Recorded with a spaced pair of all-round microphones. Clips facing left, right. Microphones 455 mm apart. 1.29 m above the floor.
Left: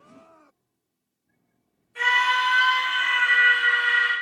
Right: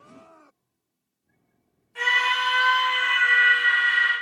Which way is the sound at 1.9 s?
10° right (ahead or behind).